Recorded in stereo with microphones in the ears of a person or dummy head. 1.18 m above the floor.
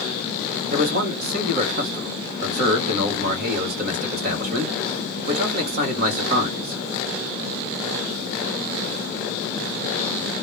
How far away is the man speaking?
About 1.0 m.